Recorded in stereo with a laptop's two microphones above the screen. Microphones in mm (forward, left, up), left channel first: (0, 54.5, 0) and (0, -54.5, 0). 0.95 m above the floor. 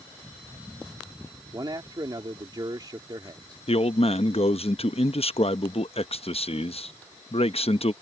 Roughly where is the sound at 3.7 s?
Left.